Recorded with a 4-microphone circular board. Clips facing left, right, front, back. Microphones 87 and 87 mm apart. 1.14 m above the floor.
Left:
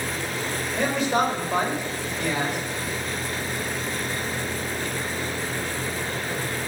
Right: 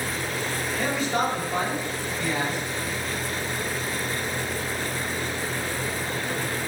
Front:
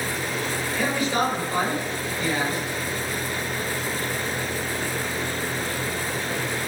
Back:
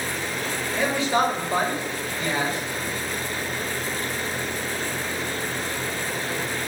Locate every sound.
0.8 s a man speaking: 115° left, 5 m